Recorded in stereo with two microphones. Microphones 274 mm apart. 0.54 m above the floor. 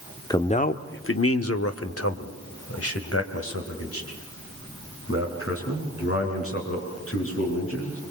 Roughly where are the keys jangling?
I don't hear keys jangling.